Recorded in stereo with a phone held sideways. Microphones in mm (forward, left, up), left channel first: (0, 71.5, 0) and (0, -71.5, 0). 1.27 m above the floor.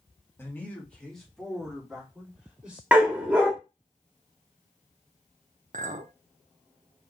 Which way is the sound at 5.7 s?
60° right (ahead or behind).